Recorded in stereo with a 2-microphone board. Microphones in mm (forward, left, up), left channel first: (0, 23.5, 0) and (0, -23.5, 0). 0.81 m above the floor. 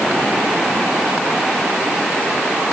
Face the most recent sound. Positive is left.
No sound to turn to.